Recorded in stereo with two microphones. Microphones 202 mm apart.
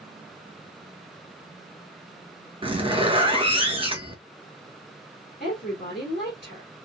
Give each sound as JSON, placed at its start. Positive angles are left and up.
{"t": 2.6, "sound": "a zipper", "side_deg": -25, "distance_m": 1.2}
{"t": 5.4, "sound": "a woman speaking", "side_deg": 50, "distance_m": 2.5}